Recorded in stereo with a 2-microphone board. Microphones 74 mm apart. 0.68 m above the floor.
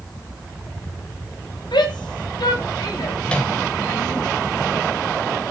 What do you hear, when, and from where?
1.7 s a shout: 80° left, 4.5 m; by 4.2 s 50° left (ahead or behind), 6.5 m
3.2 s a microwave: 15° left (ahead or behind), 2.5 m